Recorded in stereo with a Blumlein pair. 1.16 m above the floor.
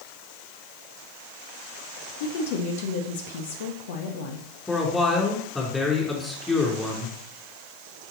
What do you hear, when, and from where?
2.2 s a woman speaking: 50° left, 1.4 m
4.7 s a man speaking: 10° left, 3.5 m